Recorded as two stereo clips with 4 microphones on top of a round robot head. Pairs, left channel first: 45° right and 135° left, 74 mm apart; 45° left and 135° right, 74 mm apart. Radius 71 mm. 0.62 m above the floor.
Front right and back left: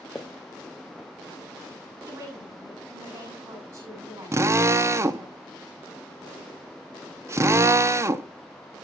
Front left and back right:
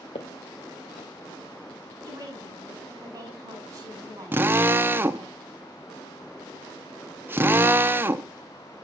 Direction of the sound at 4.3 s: 170° left.